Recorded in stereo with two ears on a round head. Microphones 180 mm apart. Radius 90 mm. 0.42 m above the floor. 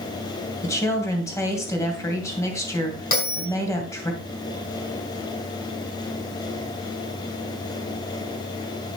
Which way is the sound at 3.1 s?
50° left (ahead or behind).